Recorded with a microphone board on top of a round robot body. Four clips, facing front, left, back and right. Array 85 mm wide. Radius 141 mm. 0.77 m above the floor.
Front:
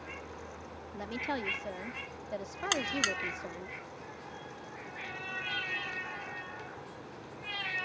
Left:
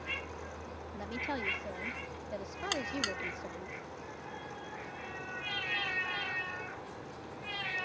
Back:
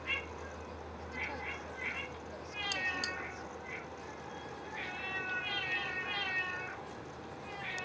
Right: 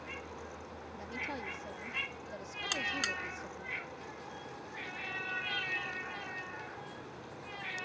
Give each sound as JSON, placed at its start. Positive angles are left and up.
{"t": 0.9, "sound": "a woman speaking", "azimuth_deg": 20}
{"t": 2.7, "sound": "a buzzer", "azimuth_deg": 5}